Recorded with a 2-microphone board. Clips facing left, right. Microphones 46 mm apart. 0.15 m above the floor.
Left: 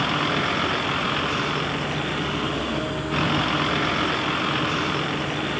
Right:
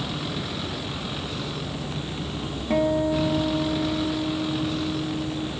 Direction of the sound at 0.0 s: 60° left (ahead or behind).